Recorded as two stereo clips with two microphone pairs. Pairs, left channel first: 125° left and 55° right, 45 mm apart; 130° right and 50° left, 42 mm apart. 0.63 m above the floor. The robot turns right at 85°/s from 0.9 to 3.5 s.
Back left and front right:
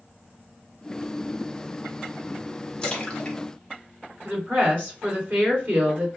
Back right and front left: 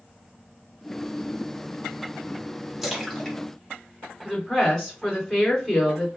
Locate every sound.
2.8 s a splash: 120° left, 0.8 m; by 5.0 s straight behind, 0.8 m
4.2 s a woman speaking: 45° right, 1.8 m